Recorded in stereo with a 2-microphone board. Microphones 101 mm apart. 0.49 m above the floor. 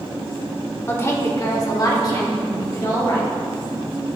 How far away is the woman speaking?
About 1.1 m.